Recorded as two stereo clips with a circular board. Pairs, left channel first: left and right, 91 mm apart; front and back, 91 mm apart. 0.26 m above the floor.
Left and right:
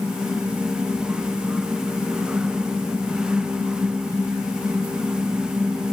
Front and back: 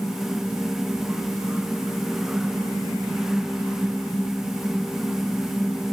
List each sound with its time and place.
Only background noise.